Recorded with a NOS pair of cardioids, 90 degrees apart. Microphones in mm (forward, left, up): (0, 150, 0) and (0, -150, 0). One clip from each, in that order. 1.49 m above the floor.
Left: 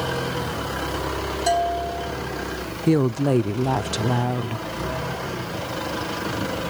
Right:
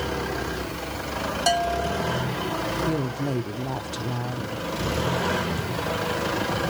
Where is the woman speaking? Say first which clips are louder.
Left 7 dB; 35° left, 0.5 m.